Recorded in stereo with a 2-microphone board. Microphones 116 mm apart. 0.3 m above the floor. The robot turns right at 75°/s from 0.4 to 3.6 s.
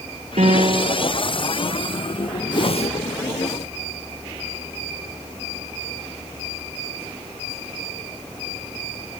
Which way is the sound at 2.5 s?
40° left (ahead or behind).